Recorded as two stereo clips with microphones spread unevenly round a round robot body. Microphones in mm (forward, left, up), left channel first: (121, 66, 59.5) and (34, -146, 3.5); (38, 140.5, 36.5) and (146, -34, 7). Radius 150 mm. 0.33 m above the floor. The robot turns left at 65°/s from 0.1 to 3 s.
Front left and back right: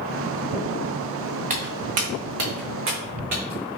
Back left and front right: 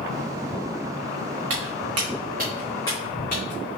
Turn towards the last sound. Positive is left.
turn(degrees=170)